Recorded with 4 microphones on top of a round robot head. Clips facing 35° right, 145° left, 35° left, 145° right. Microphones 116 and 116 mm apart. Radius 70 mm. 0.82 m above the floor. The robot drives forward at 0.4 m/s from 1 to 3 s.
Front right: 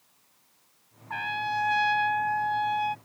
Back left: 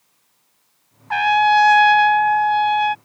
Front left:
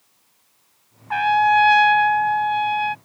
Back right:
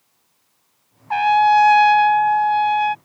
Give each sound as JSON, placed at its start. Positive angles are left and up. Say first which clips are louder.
{"t": 1.1, "sound": "a trumpet", "louder": "back left 16 dB, back right 3 dB", "azimuth_deg": 160}